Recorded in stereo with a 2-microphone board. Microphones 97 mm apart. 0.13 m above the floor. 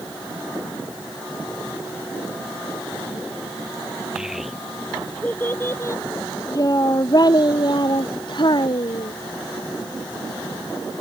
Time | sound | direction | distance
4.2 | a child speaking | 10° right (ahead or behind) | ?